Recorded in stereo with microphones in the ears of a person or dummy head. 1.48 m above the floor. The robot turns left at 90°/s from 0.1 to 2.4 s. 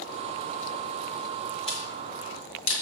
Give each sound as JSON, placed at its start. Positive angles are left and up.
{"t": 1.7, "sound": "a camera shutter", "side_deg": 30, "distance_m": 1.8}